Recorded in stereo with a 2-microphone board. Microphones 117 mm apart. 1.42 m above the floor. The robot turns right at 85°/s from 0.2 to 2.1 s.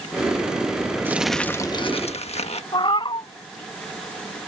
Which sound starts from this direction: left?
A cat meowing, at 2.7 s.